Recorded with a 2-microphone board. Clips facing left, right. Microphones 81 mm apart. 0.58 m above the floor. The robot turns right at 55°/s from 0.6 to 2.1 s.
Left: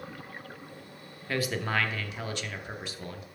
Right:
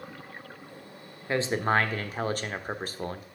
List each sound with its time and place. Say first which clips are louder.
1.3 s a man speaking: right 5 dB; 145° right, 0.7 m; by 3.2 s 100° right, 0.7 m